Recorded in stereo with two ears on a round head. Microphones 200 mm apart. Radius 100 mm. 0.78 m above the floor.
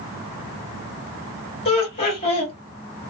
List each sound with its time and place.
1.6 s laughter: 30° left (ahead or behind), 1.9 m